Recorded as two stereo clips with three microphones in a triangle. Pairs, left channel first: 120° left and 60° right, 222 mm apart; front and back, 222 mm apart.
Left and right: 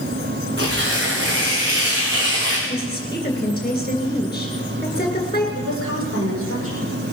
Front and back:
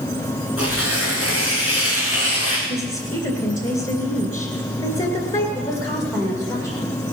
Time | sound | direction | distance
0.6 | tearing paper | 20° right | 5 m
2.7 | a woman speaking | 55° left | 2.5 m
5.5 | a woman speaking | 75° right | 7 m